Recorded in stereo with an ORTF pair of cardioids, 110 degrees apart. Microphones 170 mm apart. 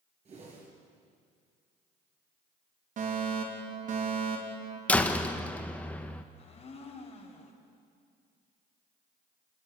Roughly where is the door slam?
Ahead.